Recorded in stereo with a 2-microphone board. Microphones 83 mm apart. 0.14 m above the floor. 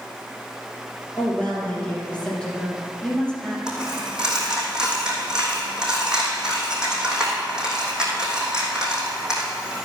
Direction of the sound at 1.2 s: 15° left (ahead or behind).